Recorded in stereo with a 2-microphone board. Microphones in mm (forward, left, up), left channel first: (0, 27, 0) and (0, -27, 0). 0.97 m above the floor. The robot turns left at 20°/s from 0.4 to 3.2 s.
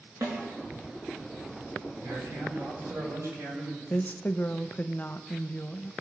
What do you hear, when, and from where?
0.2 s a snare drum: 55° right (ahead or behind), 5 m
2.0 s a man speaking: 85° right, 6 m; by 3.8 s 65° right (ahead or behind), 6 m
3.9 s a woman speaking: 35° left (ahead or behind), 0.6 m